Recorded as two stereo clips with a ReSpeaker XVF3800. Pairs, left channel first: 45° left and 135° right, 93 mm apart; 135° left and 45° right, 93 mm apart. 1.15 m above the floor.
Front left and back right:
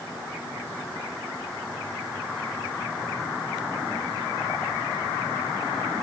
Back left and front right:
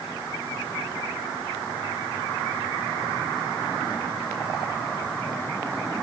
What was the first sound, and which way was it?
Only background noise.